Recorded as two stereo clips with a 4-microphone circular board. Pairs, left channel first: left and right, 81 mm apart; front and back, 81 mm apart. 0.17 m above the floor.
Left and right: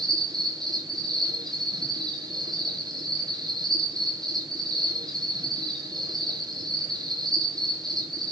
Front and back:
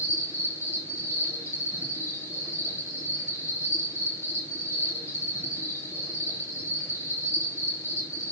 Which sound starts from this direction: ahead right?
An insect, at 0.0 s.